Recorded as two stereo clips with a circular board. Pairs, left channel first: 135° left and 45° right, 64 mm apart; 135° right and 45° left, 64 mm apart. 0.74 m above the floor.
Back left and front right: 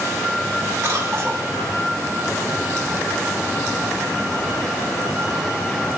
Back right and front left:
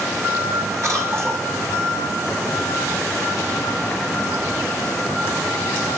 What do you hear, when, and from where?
0.8 s a cough: 5° left, 3 m